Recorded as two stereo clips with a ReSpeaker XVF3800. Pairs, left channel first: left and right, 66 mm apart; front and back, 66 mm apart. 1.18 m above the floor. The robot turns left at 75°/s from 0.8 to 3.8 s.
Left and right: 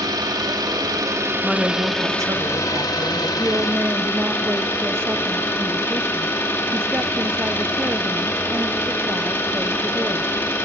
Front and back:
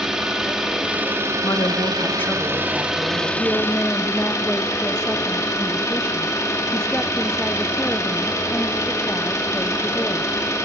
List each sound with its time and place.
0.0 s an engine running: 100° right, 2 m; by 10.7 s 35° left, 2 m
1.4 s a woman speaking: straight ahead, 1.6 m; by 3.3 s 135° right, 1.6 m
3.4 s a woman speaking: 45° right, 0.5 m; by 10.3 s 75° right, 0.5 m